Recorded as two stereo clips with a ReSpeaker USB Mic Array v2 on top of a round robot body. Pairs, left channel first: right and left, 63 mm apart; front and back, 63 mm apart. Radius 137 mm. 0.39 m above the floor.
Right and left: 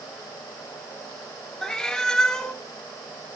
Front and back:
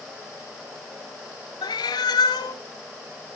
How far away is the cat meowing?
About 1.0 m.